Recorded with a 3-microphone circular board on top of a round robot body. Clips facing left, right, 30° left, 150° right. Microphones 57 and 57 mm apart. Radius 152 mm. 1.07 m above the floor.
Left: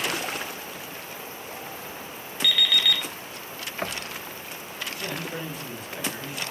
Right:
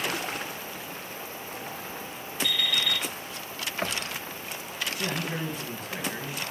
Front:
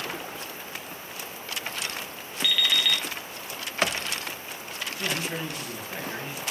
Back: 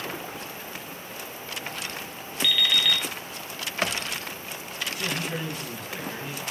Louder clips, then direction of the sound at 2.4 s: Left 5 dB, back 1 dB; 115° left.